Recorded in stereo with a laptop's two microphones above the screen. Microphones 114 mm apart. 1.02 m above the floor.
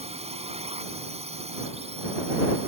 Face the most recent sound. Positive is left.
turn(degrees=-65)  # may be behind; listen again after turning